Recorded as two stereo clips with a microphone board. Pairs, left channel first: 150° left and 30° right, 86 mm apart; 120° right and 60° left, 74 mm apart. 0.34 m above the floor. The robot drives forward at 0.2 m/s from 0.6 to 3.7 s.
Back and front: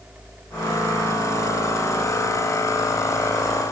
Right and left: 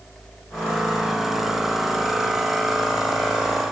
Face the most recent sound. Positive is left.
No sound to turn to.